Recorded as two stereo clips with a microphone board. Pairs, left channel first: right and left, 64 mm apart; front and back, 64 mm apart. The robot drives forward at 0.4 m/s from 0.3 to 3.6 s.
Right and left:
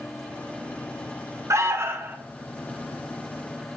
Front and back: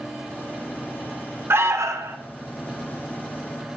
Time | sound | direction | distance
1.5 | an alarm | 130° left | 0.5 m